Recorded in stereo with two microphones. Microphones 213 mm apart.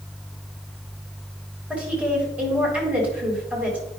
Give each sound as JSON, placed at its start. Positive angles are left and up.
{"t": 1.7, "sound": "a woman speaking", "side_deg": -5, "distance_m": 2.0}